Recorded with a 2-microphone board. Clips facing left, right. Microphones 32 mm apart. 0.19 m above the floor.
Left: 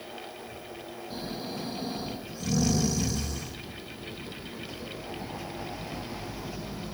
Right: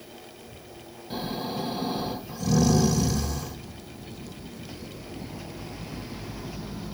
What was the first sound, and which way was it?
Snoring, 65° right (ahead or behind).